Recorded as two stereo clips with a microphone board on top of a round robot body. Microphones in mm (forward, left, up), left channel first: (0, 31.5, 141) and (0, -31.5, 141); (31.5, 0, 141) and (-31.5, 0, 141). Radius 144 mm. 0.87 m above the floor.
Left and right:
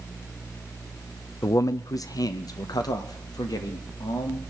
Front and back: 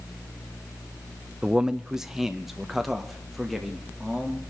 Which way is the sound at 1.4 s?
105° left.